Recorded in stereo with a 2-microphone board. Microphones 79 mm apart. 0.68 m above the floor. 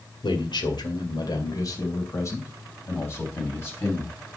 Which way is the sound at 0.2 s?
75° left (ahead or behind).